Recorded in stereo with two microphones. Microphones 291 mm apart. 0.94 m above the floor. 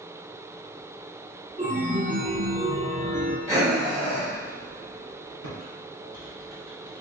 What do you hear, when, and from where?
1.6 s a chime: 25° right (ahead or behind), 0.6 m
3.5 s breathing: 20° right (ahead or behind), 1.9 m
5.4 s typing on a keyboard: 70° right (ahead or behind), 1.9 m